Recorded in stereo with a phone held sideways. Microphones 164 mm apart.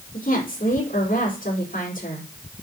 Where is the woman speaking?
65° left (ahead or behind), 4.5 m.